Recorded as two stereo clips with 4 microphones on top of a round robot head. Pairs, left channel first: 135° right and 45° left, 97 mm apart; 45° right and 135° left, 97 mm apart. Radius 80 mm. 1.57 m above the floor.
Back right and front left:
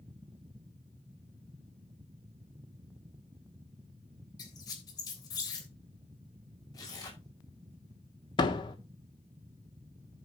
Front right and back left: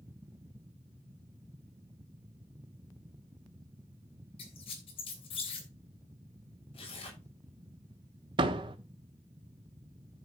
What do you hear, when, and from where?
4.4 s a squeak: 85° right, 3 m
6.7 s tearing paper: 80° right, 6.5 m
8.4 s a door slam: straight behind, 1.4 m